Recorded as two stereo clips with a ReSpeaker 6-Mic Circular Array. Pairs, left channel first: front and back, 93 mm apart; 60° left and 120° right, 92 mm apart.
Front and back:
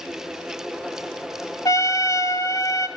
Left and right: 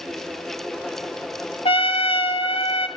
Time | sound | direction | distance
1.6 | a trumpet | 50° left | 1.2 m